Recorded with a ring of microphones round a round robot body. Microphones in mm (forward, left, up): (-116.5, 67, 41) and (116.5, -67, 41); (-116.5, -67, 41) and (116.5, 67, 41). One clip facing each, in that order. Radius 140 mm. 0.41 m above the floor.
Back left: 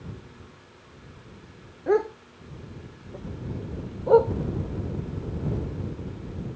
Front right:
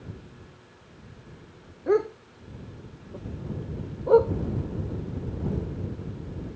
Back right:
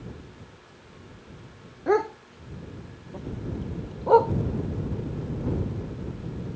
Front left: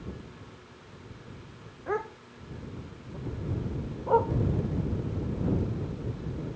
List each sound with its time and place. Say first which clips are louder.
1.9 s a dog barking: even, back right 10 dB; 115° right